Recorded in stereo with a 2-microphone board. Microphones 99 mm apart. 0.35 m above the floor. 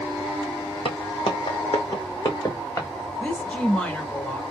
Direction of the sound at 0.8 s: 60° left (ahead or behind).